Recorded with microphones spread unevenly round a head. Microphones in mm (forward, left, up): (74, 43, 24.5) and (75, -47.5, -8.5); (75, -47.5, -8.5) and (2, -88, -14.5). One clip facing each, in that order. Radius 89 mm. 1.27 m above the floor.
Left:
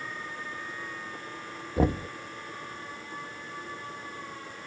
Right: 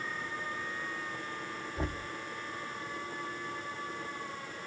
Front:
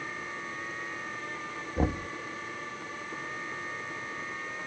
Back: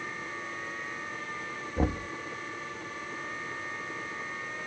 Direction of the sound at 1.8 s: 115° left.